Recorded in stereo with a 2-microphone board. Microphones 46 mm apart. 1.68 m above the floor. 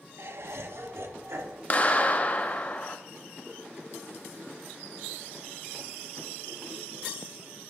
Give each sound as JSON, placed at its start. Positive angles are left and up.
{"t": 0.2, "sound": "laughter", "side_deg": -65, "distance_m": 0.8}
{"t": 1.7, "sound": "a clap", "side_deg": 35, "distance_m": 0.6}